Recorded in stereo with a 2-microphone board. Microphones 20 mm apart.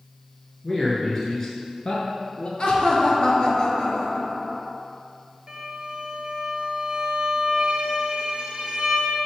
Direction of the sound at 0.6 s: Centre (ahead or behind).